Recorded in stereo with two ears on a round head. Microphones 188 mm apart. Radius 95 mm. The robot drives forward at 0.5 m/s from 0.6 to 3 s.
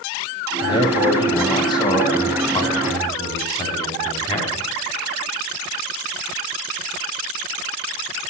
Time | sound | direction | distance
0.6 | a man speaking | 25° left (ahead or behind) | 3 m